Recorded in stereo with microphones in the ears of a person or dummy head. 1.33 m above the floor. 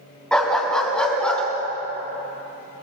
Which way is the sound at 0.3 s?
5° left (ahead or behind).